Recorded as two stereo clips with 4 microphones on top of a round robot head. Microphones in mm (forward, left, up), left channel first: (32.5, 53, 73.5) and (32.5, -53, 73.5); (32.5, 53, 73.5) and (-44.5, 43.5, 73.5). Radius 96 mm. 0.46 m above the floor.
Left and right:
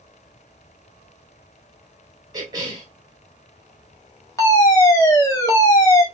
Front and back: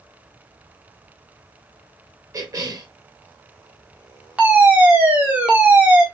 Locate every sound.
2.3 s a cough: 140° right, 3 m
4.4 s a fire alarm: 125° left, 2.5 m